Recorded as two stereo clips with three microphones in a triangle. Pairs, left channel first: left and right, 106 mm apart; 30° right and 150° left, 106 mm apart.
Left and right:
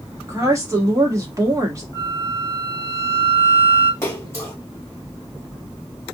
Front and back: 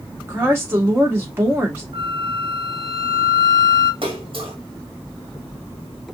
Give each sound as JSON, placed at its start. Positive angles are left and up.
{"t": 0.3, "sound": "a woman speaking", "azimuth_deg": -145, "distance_m": 1.5}
{"t": 1.9, "sound": "a flute", "azimuth_deg": 135, "distance_m": 1.0}
{"t": 4.0, "sound": "a splash", "azimuth_deg": 145, "distance_m": 1.5}